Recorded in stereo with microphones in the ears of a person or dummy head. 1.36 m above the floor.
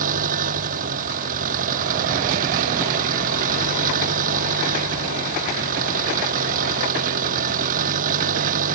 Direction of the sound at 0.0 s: 50° right (ahead or behind).